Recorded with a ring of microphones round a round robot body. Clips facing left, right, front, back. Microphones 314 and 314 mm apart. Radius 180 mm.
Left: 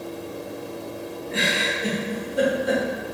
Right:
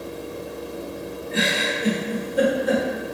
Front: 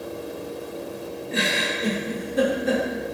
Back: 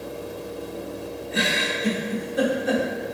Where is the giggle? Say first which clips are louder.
Right 3 dB, even; 5° right, 0.9 m.